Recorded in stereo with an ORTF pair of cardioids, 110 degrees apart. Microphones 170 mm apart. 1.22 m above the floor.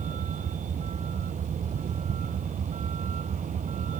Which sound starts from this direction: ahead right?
A vehicle, at 0.0 s.